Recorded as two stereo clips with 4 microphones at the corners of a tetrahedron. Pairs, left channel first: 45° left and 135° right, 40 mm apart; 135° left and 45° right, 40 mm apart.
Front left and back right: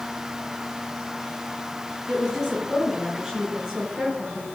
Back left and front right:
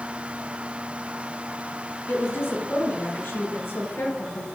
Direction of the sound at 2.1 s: 150° left.